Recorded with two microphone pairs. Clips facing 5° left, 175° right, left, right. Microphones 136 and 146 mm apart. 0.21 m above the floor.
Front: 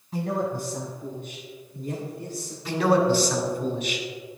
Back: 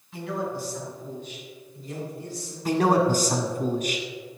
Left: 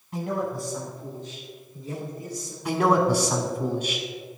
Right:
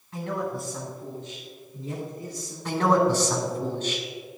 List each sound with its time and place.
0.1 s a man speaking: 30° left, 1.4 m; by 2.5 s 40° right, 4 m
2.6 s a man speaking: 165° left, 1.6 m